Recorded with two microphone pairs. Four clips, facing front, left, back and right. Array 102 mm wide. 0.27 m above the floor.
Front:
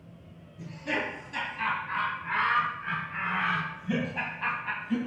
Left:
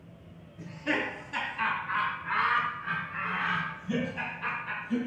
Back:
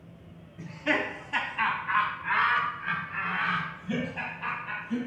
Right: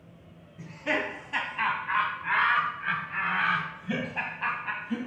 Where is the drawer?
No drawer in this recording.